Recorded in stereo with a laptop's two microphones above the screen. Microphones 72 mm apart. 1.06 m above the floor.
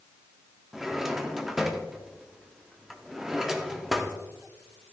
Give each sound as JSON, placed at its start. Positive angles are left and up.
{"t": 0.7, "sound": "a drawer", "side_deg": -5, "distance_m": 0.8}